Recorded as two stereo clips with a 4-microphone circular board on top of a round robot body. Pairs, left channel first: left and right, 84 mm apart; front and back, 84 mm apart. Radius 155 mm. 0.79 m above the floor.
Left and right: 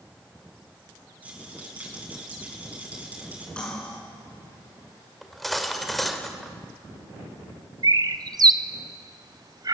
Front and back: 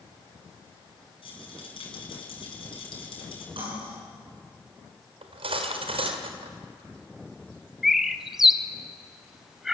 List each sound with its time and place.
1.2 s a rattle: 15° right, 5.5 m
3.6 s cutlery clinking: 170° left, 8 m
5.2 s cutlery clinking: straight behind, 1.8 m
7.8 s a bird: 95° right, 1.2 m